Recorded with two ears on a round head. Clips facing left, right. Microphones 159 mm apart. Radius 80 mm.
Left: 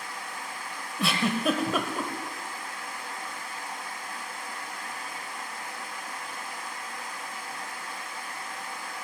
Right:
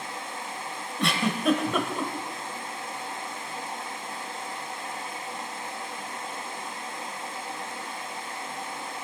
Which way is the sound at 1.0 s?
Centre (ahead or behind).